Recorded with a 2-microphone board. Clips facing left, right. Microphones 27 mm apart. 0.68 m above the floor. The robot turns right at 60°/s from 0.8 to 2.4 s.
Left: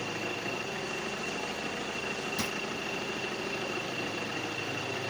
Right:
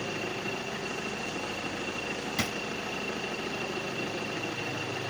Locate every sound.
2.4 s a drawer: 65° right (ahead or behind), 0.8 m